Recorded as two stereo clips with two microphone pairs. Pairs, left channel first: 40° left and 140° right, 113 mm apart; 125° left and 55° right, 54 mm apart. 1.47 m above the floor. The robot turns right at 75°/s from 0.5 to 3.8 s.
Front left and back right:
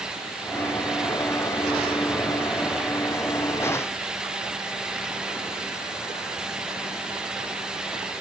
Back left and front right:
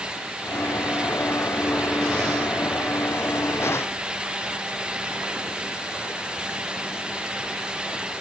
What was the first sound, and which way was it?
Only background noise.